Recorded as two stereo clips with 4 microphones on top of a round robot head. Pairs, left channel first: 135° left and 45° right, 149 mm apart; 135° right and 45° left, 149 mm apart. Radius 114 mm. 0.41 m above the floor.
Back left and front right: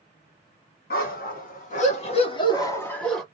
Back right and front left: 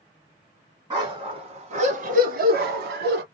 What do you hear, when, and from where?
0.9 s a dog barking: 110° left, 1.5 m; by 3.2 s 45° left, 1.0 m